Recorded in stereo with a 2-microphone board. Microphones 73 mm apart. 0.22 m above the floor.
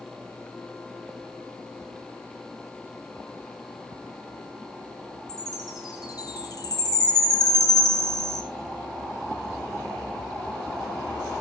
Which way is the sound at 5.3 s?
65° left (ahead or behind).